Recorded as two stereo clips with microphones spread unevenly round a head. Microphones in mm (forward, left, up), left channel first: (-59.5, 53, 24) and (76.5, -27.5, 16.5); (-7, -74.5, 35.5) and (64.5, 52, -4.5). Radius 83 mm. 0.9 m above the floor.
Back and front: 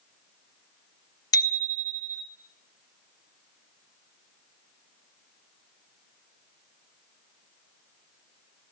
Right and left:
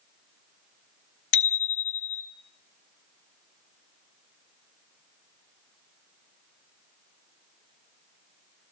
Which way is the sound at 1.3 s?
140° right.